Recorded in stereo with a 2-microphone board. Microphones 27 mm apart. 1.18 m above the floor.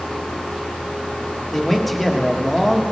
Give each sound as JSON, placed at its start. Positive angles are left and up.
{"t": 1.5, "sound": "a man speaking", "side_deg": 5, "distance_m": 1.2}